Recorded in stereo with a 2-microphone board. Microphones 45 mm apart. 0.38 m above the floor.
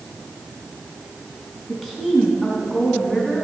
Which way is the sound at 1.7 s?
5° left (ahead or behind).